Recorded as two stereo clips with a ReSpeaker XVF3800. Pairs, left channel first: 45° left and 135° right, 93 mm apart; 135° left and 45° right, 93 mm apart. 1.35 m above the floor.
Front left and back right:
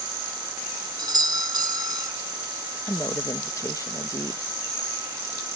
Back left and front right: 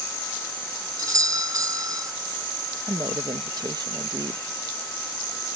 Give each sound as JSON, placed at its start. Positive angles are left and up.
{"t": 1.0, "sound": "a doorbell", "azimuth_deg": -95}
{"t": 2.9, "sound": "a woman speaking", "azimuth_deg": -5}